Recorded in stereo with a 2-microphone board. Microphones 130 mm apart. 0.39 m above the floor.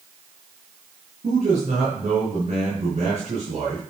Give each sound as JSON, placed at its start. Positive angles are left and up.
{"t": 1.2, "sound": "a man speaking", "side_deg": -60, "distance_m": 4.0}